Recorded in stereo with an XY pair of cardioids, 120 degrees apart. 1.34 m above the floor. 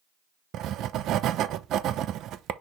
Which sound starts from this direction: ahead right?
Writing, at 0.5 s.